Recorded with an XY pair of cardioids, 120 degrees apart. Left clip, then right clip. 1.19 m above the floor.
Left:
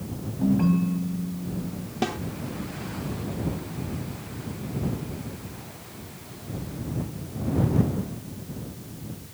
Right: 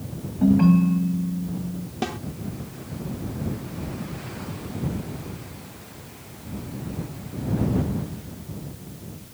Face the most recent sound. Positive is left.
turn(degrees=5)